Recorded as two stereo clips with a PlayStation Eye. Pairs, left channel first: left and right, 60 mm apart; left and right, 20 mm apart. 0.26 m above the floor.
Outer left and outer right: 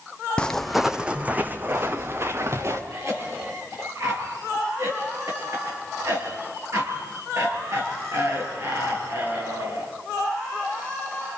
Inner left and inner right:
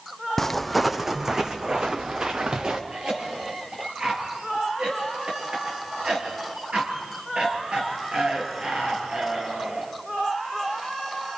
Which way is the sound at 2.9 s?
60° right (ahead or behind).